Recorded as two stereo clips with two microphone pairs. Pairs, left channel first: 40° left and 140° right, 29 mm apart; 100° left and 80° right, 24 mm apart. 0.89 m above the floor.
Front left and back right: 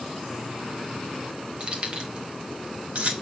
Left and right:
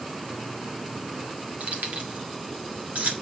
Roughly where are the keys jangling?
Right.